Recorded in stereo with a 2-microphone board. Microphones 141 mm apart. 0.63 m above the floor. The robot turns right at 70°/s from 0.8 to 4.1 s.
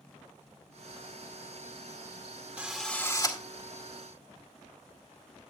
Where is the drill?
10° right, 2 m; by 3.4 s 45° left, 2 m.